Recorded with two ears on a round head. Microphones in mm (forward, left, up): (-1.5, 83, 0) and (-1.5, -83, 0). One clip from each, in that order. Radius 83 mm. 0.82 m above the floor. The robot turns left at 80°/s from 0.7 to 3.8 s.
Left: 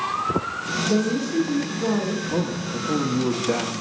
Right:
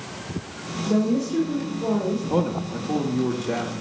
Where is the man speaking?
135° right, 1.0 m; by 3.7 s 115° left, 1.0 m.